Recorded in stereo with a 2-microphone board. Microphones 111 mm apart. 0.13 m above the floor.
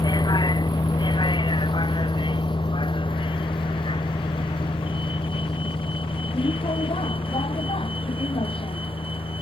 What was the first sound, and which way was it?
A vehicle, 40° left (ahead or behind).